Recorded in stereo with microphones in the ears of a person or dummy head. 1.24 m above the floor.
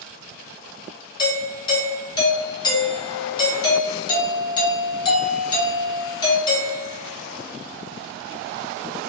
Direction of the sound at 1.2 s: 25° left (ahead or behind).